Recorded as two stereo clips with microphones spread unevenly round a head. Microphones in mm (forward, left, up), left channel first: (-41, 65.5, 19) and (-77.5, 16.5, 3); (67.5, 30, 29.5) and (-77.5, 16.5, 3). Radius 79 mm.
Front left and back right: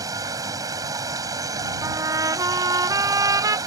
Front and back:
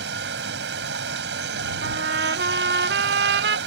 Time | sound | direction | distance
0.0 | running water | 150° right | ?
1.8 | a trumpet | 150° right | ?